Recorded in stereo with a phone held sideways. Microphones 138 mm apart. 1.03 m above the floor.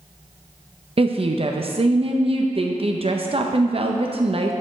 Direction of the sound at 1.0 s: 45° right (ahead or behind).